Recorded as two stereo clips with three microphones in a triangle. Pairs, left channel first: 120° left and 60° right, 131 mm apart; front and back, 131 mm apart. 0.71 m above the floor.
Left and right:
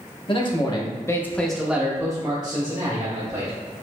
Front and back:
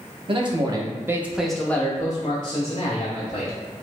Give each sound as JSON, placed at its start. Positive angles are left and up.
{"t": 0.3, "sound": "a man speaking", "azimuth_deg": 150, "distance_m": 0.9}